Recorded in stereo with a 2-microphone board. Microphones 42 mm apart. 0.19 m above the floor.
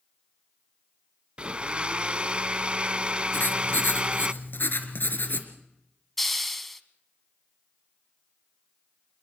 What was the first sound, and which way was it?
A blender, 25° right (ahead or behind).